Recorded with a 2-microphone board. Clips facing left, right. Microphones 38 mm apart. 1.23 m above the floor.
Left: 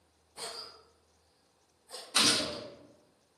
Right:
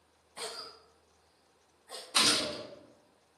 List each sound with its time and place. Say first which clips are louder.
0.4 s a cough: right 1 dB; 65° right (ahead or behind), 0.6 m
2.1 s a gunshot: even; 10° right (ahead or behind), 1.0 m